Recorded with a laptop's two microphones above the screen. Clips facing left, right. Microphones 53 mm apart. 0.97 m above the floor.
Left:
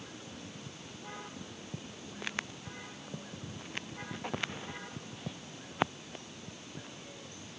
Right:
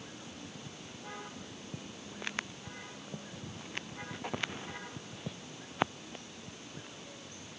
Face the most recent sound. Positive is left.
No sound to turn to.